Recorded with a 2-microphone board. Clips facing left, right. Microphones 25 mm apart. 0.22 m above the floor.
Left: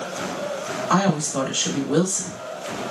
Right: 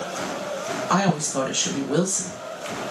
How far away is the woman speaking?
About 1.0 m.